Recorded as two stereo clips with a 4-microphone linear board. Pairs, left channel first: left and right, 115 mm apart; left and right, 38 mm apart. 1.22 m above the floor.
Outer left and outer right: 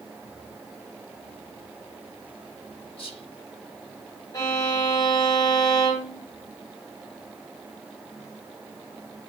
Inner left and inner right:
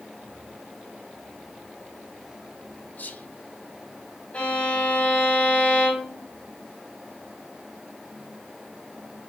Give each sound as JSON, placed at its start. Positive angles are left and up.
{"t": 3.0, "sound": "whispering", "side_deg": 60, "distance_m": 1.0}
{"t": 4.3, "sound": "a violin", "side_deg": 30, "distance_m": 3.5}